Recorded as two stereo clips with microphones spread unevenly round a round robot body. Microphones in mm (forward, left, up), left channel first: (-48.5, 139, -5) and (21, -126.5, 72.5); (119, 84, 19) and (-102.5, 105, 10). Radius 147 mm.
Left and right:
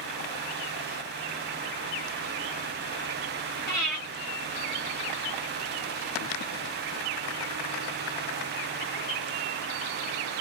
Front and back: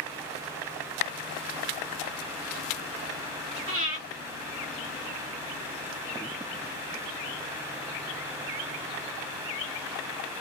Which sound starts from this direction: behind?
Breathing, at 3.7 s.